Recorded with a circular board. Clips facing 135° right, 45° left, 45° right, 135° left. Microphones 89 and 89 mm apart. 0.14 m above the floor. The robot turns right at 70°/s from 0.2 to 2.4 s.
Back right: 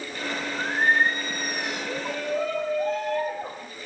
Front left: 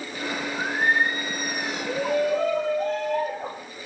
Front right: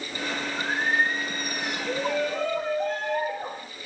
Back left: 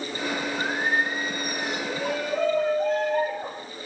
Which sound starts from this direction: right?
Singing, at 0.5 s.